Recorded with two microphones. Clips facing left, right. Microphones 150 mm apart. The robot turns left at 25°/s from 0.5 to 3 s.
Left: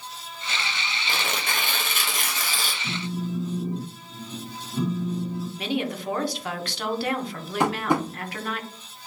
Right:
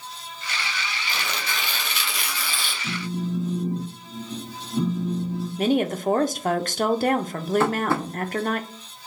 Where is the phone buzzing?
10° right (ahead or behind), 1.7 m.